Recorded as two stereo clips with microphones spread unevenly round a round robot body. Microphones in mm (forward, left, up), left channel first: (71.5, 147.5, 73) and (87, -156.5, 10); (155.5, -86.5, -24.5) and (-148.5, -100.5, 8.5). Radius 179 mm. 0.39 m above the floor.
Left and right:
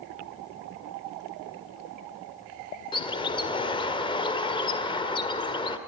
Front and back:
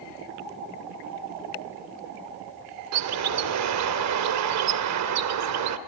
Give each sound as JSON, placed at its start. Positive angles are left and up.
{"t": 2.9, "sound": "a bird", "azimuth_deg": 175, "distance_m": 1.4}